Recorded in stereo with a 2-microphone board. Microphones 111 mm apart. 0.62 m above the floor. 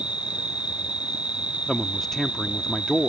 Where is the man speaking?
5° left (ahead or behind).